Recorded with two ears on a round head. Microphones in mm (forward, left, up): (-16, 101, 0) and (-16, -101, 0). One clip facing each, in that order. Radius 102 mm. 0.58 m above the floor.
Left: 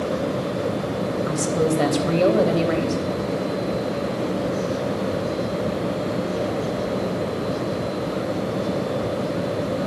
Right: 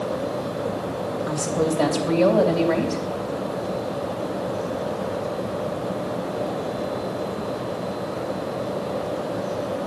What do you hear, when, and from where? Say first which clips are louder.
1.3 s a woman speaking: left 1 dB; 20° left (ahead or behind), 3.5 m